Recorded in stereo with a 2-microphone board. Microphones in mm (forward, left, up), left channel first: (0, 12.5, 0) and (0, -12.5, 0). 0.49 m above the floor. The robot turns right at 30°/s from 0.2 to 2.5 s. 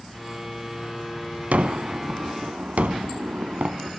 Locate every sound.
1.5 s a gunshot: 65° right (ahead or behind), 0.7 m; by 4.0 s 70° right (ahead or behind), 0.7 m